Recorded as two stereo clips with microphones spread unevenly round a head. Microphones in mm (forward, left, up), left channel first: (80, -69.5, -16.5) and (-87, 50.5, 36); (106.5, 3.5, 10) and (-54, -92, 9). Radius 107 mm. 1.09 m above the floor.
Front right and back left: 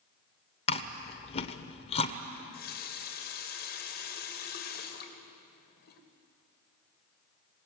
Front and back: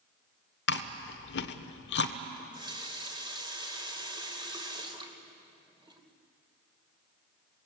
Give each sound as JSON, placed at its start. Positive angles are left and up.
{"t": 0.7, "sound": "chewing", "azimuth_deg": 35, "distance_m": 1.1}
{"t": 2.4, "sound": "a running tap", "azimuth_deg": -85, "distance_m": 3.0}